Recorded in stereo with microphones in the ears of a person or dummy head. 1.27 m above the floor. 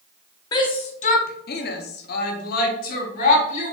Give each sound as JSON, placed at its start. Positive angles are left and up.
{"t": 0.5, "sound": "a shout", "side_deg": 25, "distance_m": 0.7}